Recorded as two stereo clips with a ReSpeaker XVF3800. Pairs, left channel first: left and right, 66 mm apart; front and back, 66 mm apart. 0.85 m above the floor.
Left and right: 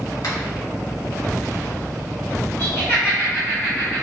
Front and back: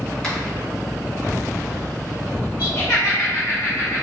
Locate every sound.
0.2 s a finger snap: 75° left, 1.9 m
2.6 s laughter: 35° left, 1.0 m